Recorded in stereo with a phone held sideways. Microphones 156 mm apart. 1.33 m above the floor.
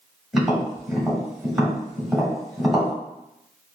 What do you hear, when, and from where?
0.3 s tapping: centre (ahead or behind), 1.2 m